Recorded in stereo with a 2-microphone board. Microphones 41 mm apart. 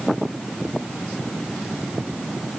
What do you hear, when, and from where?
Only background noise.